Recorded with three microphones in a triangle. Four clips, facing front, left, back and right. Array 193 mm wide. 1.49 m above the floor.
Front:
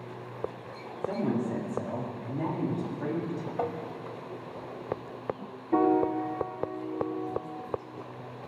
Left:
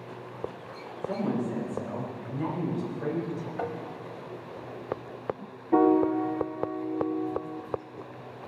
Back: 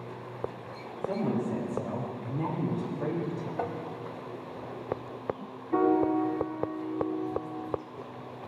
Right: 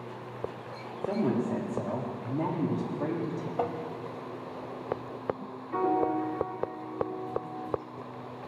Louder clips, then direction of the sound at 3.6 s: Right 4 dB, front 2 dB; 65° right.